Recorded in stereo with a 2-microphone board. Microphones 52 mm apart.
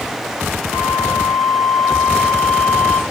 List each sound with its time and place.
0.7 s a flute: 35° left (ahead or behind), 2.5 m